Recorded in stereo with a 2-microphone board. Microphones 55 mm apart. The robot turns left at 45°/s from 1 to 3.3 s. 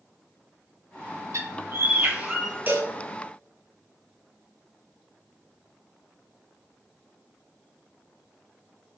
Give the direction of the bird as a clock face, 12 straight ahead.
4 o'clock.